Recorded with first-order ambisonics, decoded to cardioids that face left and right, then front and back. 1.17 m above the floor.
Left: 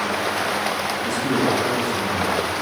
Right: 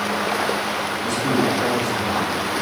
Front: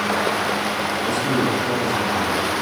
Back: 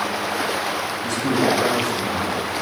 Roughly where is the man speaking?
Behind right.